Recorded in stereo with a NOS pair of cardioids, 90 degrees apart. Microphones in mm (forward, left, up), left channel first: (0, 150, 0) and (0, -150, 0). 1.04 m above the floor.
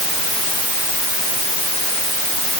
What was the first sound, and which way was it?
Only background noise.